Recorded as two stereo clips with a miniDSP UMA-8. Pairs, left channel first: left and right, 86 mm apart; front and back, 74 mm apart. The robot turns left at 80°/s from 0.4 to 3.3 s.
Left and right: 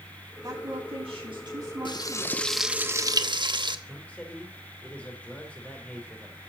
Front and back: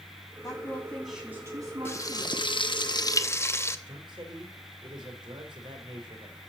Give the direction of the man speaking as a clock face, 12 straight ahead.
6 o'clock.